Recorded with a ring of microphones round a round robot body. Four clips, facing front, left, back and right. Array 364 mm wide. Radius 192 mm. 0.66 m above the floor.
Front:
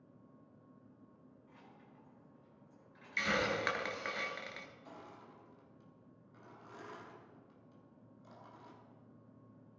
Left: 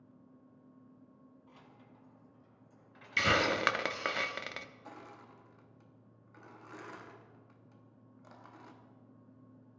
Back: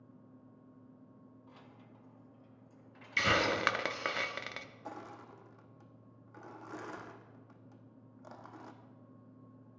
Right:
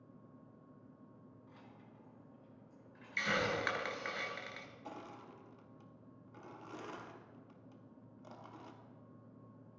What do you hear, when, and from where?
1.5 s keys jangling: 155° left, 1.8 m; by 4.1 s 115° left, 3 m
3.2 s a hiss: 120° left, 1.0 m
4.8 s crushing: 165° right, 1.1 m